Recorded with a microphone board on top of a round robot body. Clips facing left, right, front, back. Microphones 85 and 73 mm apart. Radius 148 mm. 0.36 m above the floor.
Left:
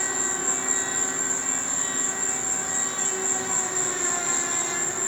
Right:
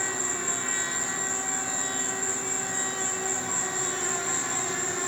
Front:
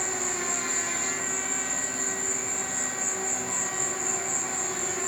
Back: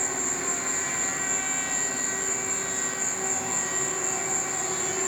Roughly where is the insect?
Left.